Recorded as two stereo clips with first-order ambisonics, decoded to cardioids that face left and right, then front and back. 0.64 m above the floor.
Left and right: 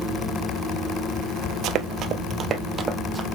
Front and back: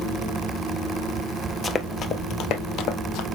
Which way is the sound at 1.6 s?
65° right.